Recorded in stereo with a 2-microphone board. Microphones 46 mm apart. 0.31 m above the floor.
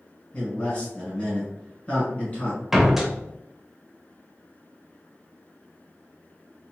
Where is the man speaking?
25° left (ahead or behind), 1.7 m.